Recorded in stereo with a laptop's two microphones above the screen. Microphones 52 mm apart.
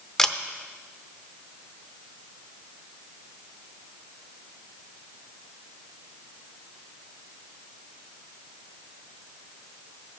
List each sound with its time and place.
0.2 s a camera shutter: 5° left (ahead or behind), 0.7 m